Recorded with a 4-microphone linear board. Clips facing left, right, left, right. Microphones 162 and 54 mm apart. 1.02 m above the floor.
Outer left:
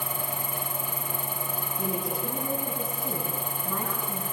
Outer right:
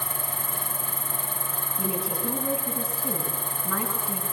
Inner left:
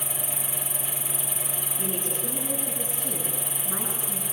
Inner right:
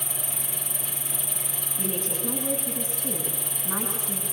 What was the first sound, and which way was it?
An insect, 55° right (ahead or behind).